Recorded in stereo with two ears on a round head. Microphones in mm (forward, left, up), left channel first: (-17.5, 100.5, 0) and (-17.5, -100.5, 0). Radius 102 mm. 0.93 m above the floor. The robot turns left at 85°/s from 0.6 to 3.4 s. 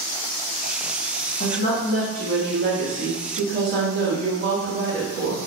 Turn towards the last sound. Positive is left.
turn(degrees=-115)